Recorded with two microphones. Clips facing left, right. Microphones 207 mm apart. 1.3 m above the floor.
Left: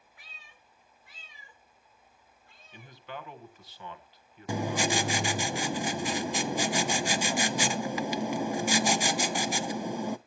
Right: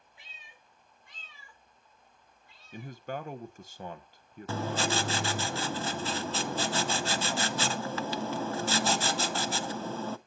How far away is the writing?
About 0.6 m.